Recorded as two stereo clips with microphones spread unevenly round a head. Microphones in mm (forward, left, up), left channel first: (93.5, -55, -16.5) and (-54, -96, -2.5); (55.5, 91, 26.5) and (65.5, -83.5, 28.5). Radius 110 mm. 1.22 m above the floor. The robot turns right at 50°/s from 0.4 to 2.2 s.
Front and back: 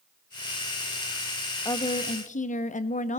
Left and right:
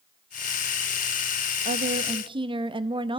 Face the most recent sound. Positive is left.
turn(degrees=-25)